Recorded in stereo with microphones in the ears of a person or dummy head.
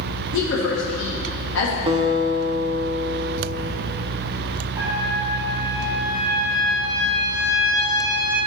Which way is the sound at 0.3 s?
65° left (ahead or behind).